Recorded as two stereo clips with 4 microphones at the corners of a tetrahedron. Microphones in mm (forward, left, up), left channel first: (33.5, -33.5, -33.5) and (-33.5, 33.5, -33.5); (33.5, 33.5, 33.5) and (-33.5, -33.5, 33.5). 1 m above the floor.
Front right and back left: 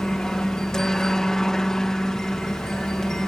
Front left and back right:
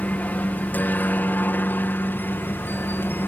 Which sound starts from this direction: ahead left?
A helicopter, at 0.0 s.